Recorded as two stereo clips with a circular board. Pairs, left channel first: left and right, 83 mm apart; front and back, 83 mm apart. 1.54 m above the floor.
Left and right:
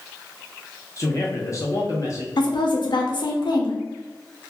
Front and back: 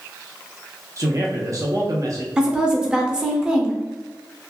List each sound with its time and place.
1.0 s a man speaking: 135° left, 0.7 m
2.4 s a woman speaking: 100° left, 0.6 m